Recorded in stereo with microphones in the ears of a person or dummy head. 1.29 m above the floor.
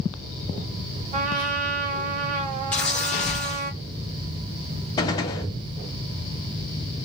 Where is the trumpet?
35° right (ahead or behind), 0.7 m.